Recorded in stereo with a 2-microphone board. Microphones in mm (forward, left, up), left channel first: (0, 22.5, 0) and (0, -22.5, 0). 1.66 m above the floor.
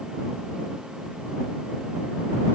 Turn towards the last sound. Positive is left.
No sound to turn to.